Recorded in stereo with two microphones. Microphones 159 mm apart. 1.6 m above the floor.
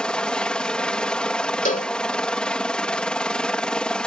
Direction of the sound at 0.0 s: 5° left (ahead or behind).